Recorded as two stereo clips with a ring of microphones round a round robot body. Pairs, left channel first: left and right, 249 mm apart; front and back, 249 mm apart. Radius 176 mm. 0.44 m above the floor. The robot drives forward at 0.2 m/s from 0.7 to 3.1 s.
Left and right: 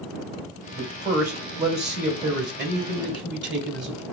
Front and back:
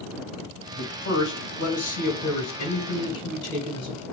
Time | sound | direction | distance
0.8 | a man speaking | 50° right | 1.6 m